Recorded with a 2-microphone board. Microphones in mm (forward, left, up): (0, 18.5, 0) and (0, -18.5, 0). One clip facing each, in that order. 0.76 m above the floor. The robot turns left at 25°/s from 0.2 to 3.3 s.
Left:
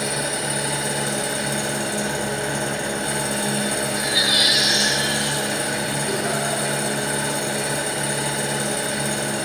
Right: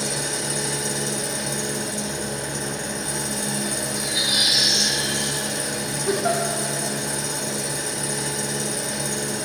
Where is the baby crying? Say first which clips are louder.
Left 4 dB; 45° left (ahead or behind), 1.1 m.